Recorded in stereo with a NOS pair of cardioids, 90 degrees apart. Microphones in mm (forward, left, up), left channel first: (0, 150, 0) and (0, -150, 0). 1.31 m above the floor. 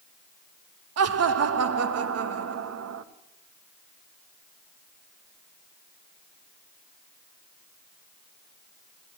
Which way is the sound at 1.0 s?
55° right.